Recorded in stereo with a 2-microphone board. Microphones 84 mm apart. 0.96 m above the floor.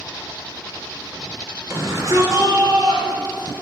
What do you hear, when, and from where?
1.7 s a shout: 35° right (ahead or behind), 4 m; by 3.5 s 65° right (ahead or behind), 4.5 m